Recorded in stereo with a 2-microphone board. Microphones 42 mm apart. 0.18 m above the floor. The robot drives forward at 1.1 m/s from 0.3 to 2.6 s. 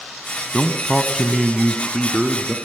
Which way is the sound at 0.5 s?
Centre (ahead or behind).